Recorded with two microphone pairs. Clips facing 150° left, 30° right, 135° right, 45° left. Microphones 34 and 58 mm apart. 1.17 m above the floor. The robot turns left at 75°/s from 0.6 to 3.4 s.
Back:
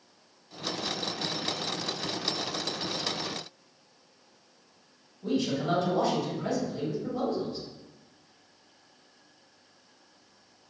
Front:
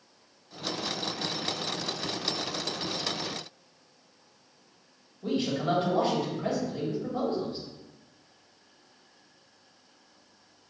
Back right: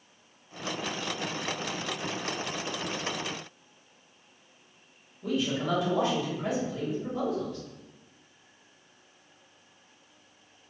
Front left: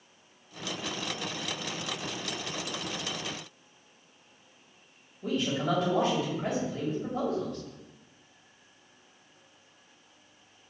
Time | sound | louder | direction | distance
5.2 | a man speaking | even, even | 10° left | 1.4 m